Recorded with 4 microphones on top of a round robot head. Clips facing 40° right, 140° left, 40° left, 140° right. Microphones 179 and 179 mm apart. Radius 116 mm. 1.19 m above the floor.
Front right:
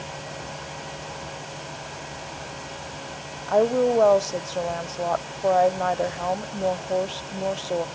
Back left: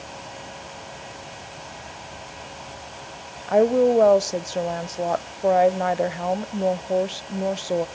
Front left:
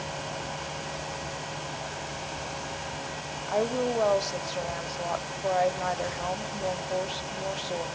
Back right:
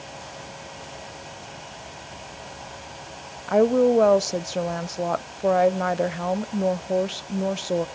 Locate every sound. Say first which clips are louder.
3.5 s a woman speaking: back left 3 dB, back right 10 dB; 145° right, 0.7 m